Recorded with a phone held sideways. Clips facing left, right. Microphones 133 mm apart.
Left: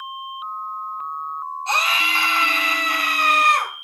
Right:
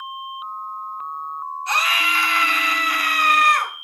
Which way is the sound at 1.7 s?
30° left (ahead or behind).